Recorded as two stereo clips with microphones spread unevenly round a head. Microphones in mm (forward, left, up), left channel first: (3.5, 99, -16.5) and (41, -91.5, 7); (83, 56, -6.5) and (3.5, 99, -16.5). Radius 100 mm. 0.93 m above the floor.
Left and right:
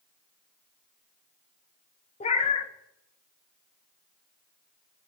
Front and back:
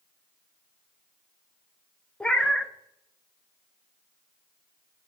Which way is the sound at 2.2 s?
45° left.